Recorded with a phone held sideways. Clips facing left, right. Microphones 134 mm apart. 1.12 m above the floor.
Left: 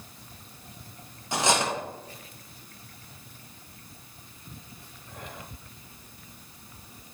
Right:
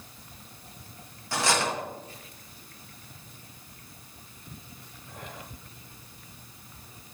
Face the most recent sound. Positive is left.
turn(degrees=20)  # may be behind; listen again after turning